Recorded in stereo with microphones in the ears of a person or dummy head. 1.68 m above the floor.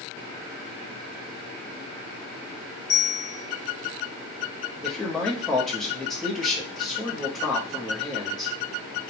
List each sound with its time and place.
2.9 s a bell: 55° left (ahead or behind), 1.4 m
4.8 s a man speaking: 5° left (ahead or behind), 0.7 m